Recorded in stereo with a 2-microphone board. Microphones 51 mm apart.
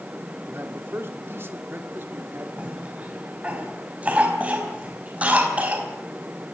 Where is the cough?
25° right (ahead or behind), 4.5 m.